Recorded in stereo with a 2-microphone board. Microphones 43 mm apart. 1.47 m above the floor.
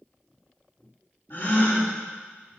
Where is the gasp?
65° left (ahead or behind), 1.9 m.